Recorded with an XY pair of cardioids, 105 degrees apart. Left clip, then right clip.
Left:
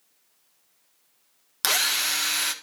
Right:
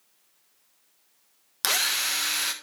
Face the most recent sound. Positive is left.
turn(degrees=10)